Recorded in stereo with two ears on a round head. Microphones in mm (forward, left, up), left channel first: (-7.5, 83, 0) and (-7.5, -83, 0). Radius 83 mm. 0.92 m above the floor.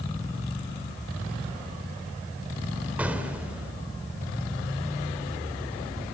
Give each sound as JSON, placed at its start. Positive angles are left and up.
{"t": 3.0, "sound": "an explosion", "side_deg": -10, "distance_m": 2.0}